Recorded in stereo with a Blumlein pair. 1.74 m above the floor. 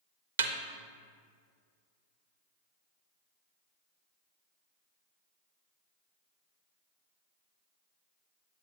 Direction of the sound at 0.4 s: 65° right.